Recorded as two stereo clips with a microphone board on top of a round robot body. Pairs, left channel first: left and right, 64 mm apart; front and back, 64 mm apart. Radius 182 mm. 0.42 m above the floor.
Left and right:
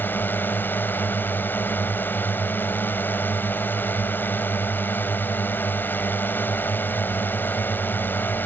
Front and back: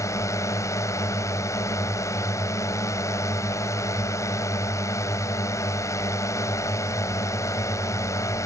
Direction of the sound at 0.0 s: 35° left.